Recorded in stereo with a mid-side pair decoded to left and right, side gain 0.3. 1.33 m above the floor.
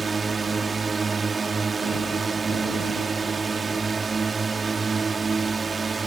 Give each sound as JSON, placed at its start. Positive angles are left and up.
{"t": 0.0, "sound": "a drone", "azimuth_deg": -45}